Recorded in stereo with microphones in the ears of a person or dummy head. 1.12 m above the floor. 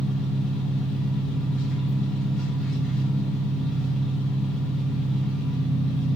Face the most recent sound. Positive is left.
turn(degrees=0)  # may be behind; listen again after turning